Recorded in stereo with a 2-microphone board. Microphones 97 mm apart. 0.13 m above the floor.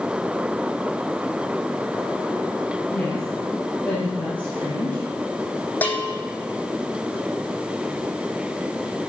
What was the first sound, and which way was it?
A woman speaking, 5° left (ahead or behind).